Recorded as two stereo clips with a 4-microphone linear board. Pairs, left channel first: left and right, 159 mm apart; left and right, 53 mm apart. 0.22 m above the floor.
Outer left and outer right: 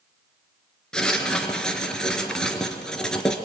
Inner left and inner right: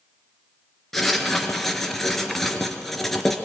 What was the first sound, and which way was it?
Writing, 5° left (ahead or behind).